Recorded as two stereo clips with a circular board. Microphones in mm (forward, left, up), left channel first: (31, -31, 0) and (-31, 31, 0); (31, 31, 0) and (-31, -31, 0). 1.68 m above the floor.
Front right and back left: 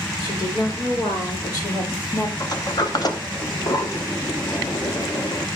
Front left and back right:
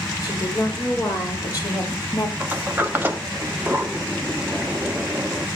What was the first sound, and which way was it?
A woman speaking, 5° right.